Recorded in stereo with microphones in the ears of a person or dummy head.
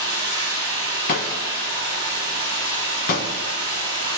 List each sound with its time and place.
0.0 s running water: 30° right (ahead or behind), 5.5 m
1.1 s breaking glass: 45° left (ahead or behind), 1.5 m